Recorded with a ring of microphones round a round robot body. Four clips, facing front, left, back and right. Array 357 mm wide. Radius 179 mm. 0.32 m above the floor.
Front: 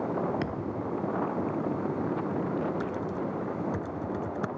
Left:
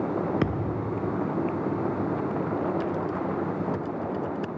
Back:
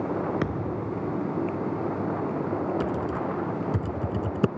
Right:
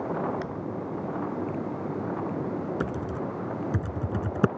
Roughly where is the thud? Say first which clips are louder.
Left 5 dB, back 3 dB; left.